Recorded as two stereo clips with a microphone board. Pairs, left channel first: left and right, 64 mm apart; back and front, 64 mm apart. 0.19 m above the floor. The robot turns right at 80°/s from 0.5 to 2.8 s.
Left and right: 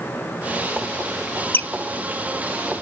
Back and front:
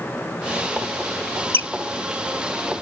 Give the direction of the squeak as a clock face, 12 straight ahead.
7 o'clock.